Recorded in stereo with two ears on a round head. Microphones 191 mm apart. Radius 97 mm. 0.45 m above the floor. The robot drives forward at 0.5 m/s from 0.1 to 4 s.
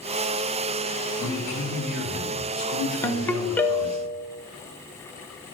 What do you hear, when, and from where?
1.2 s a man speaking: 45° left (ahead or behind), 5 m; by 4.0 s 55° left (ahead or behind), 4.5 m
3.0 s a ringtone: 15° left (ahead or behind), 0.6 m; by 4.2 s 5° left (ahead or behind), 1.0 m